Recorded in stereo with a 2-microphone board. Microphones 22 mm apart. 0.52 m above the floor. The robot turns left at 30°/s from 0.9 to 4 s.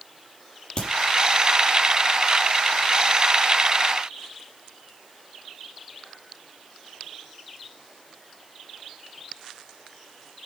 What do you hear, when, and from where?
0.8 s a crack: 50° left (ahead or behind), 5 m